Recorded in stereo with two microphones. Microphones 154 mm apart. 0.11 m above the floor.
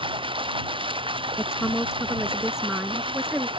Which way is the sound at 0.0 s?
35° right (ahead or behind).